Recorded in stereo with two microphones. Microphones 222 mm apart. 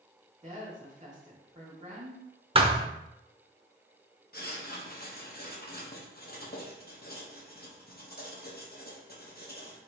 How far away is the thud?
About 0.5 m.